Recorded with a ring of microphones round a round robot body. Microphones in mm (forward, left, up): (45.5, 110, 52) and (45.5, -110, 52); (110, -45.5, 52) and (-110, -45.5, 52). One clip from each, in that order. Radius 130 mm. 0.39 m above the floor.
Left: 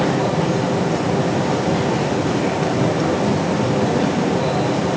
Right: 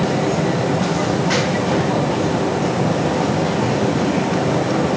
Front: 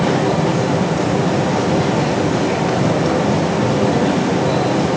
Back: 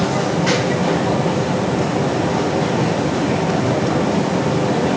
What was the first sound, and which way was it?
Only background noise.